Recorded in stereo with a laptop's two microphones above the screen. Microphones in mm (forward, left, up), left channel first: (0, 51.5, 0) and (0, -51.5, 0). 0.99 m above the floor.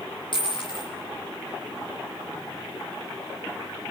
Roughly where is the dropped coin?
Left.